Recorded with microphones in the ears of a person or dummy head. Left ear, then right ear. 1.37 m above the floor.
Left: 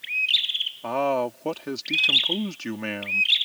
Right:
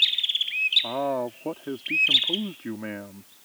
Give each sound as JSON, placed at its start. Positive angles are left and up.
{"t": 0.8, "sound": "a man speaking", "side_deg": 80}